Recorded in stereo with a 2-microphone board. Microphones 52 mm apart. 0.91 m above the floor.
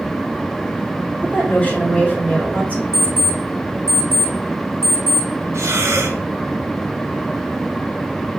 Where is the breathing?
65° right (ahead or behind), 1.1 m.